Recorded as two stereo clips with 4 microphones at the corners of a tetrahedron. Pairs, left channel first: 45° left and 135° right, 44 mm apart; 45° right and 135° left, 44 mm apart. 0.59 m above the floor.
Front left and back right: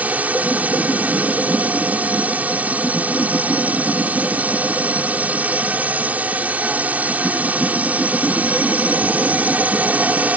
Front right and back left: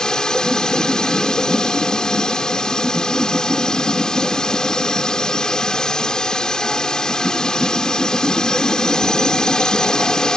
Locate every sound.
0.0 s a drone: 110° right